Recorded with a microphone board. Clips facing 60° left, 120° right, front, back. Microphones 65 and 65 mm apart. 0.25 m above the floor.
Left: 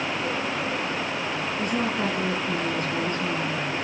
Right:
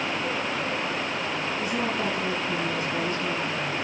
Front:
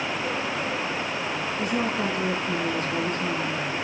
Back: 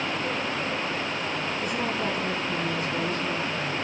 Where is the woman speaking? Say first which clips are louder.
Left 3 dB, front 4 dB; 15° left, 7 m.